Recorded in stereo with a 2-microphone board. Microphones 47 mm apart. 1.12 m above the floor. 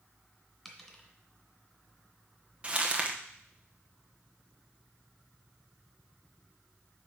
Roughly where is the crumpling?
Right.